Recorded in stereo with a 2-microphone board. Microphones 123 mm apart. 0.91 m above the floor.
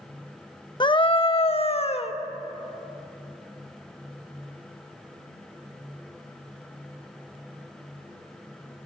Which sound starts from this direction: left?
A scream, at 0.8 s.